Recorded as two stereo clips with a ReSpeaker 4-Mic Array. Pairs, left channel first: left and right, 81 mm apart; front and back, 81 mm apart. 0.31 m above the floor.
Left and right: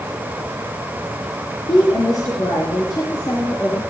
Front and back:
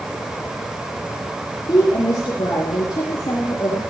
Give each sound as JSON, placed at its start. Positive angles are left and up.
{"t": 1.7, "sound": "a woman speaking", "azimuth_deg": 45, "distance_m": 6.0}